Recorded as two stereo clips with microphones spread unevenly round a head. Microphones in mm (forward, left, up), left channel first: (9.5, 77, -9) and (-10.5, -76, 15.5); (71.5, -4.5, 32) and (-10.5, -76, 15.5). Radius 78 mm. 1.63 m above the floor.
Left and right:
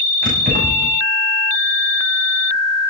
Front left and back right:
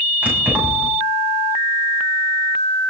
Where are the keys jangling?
60° right, 8.5 m.